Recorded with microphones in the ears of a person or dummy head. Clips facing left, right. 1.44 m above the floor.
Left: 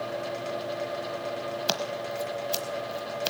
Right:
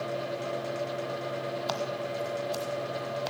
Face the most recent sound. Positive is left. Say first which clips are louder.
# left 1 dB
turn(degrees=40)  # may be behind; listen again after turning